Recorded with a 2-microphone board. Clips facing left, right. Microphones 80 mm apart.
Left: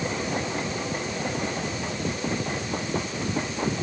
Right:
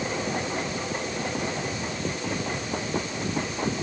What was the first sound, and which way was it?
Only background noise.